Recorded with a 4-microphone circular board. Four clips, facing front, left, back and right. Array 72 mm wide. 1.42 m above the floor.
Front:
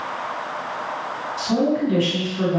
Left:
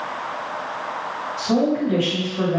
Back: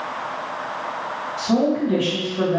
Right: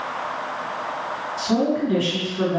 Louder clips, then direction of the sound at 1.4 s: Left 1 dB, back 1 dB; 145° left.